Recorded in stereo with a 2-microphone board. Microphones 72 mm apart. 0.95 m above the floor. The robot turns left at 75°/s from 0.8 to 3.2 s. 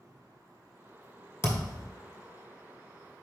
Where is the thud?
130° left, 1.4 m; by 1.9 s 95° left, 1.4 m.